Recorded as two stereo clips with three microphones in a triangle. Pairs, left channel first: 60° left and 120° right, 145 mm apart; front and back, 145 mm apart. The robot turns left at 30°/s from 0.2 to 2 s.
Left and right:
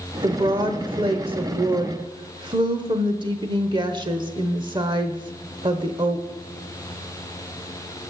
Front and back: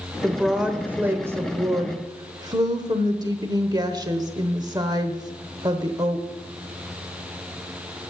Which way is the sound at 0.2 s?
90° right.